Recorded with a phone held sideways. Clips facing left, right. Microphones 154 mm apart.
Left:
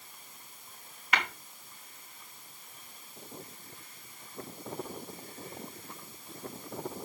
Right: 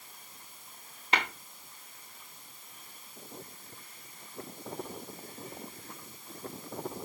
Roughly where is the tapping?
Right.